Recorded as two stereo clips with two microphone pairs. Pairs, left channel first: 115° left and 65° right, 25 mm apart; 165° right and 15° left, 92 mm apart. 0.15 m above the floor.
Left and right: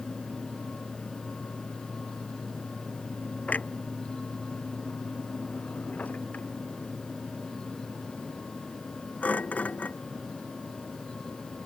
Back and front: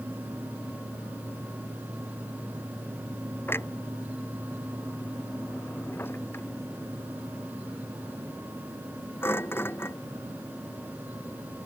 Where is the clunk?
130° left.